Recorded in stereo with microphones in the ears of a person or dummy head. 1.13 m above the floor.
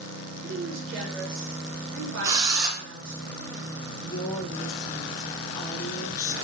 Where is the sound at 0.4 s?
65° right (ahead or behind), 1.0 m.